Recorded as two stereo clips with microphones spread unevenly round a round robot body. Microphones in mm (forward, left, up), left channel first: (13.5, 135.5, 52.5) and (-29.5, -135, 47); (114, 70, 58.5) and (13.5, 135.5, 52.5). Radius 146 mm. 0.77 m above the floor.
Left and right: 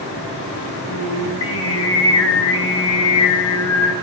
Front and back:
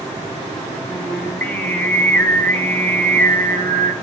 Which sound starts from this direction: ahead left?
Singing, at 0.9 s.